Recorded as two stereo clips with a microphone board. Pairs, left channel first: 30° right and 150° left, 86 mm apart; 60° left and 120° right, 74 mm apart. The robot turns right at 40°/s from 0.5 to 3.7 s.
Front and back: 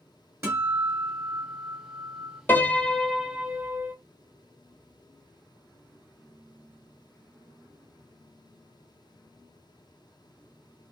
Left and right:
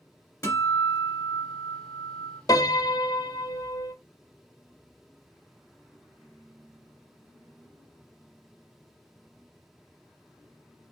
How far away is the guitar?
About 2.5 m.